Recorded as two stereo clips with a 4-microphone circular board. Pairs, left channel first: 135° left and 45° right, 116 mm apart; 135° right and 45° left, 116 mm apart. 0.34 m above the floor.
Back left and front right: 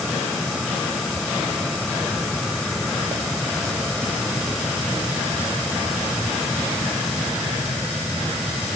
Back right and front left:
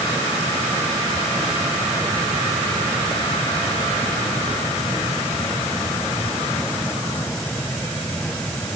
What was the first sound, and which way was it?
Only background noise.